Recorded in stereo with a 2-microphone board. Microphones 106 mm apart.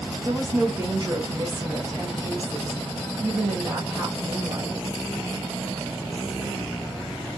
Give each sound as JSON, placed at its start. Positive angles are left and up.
{"t": 0.2, "sound": "a woman speaking", "side_deg": -40, "distance_m": 1.5}